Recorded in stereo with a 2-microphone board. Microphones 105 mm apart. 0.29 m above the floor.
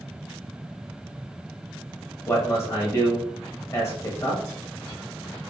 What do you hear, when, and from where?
2.3 s a man speaking: 25° left (ahead or behind), 1.0 m